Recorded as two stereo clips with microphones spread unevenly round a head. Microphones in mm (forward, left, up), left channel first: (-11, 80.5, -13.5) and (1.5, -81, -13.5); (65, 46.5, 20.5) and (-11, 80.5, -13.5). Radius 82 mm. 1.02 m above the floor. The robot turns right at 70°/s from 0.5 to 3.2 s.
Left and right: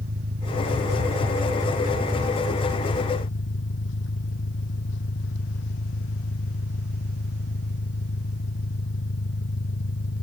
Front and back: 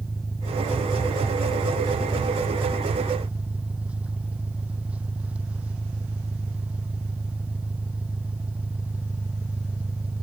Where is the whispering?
I don't hear whispering.